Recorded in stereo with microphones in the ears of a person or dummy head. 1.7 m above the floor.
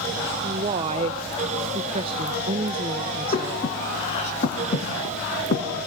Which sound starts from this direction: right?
A woman speaking, at 0.4 s.